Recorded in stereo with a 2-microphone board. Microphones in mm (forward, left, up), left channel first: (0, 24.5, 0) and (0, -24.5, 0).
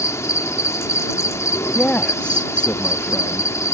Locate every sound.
0.0 s an insect: 70° left (ahead or behind)
1.8 s a man speaking: 20° left (ahead or behind)